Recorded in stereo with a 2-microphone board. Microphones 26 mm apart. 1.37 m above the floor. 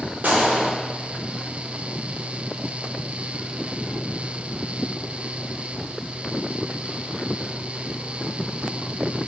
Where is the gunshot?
85° right, 0.8 m.